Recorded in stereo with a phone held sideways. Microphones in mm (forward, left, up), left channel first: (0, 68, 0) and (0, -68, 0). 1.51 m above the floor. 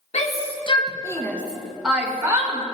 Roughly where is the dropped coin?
No dropped coin in this recording.